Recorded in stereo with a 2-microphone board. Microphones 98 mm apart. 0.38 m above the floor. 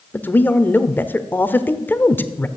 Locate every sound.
0.1 s a man speaking: 20° left (ahead or behind), 0.9 m